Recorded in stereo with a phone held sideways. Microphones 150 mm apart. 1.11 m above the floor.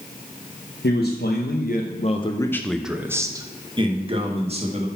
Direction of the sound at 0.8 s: 80° left.